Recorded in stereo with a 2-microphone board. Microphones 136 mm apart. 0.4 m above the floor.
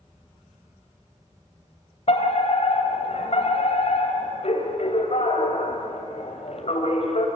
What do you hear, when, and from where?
0.0 s an insect: 25° right (ahead or behind), 6 m
2.1 s a fire alarm: 50° left (ahead or behind), 3.5 m